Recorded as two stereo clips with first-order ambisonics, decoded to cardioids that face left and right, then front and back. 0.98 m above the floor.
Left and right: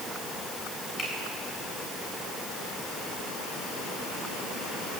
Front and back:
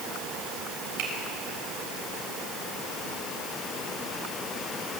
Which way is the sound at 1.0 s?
170° left.